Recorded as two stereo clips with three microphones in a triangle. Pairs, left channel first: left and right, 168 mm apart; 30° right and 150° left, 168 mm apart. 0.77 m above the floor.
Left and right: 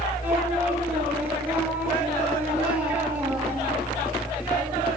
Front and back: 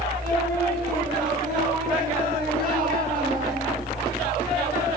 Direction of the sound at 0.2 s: 175° right.